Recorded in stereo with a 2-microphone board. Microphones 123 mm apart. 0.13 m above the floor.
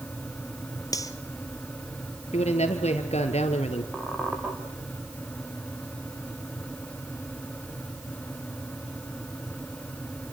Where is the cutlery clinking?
30° left (ahead or behind), 1.6 m.